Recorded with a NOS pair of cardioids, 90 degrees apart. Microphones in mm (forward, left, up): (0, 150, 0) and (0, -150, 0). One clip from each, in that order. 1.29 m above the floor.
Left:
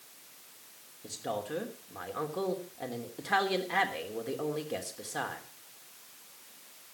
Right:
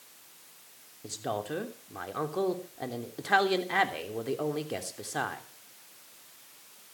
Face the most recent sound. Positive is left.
turn(degrees=-25)